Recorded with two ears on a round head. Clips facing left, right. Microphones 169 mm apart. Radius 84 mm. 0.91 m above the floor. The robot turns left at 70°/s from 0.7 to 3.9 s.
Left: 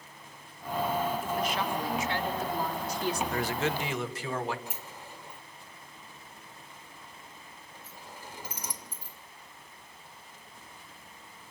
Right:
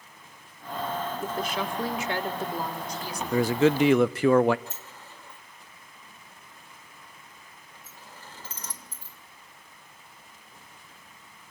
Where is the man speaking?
85° right, 0.8 m; by 4.6 s 125° right, 0.8 m.